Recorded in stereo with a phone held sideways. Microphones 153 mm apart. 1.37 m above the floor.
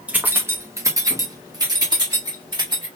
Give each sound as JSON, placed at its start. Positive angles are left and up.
{"t": 0.1, "sound": "keys jangling", "side_deg": -10, "distance_m": 1.0}